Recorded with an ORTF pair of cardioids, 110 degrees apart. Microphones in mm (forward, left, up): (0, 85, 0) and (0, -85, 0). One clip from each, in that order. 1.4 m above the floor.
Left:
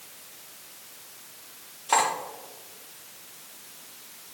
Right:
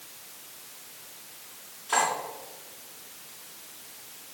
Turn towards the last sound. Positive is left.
turn(degrees=50)